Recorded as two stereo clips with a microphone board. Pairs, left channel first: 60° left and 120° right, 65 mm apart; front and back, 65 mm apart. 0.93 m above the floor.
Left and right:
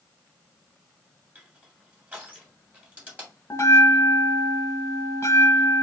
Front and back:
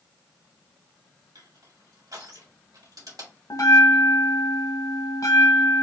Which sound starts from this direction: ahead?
A bell, at 3.5 s.